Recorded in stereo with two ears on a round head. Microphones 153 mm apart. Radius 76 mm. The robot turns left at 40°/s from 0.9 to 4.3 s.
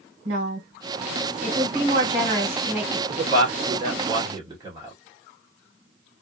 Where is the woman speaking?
95° right, 1.6 m; by 3.0 s straight behind, 1.6 m.